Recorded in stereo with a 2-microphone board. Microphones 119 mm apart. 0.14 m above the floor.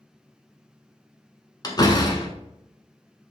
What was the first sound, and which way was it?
A door slam, 35° left (ahead or behind).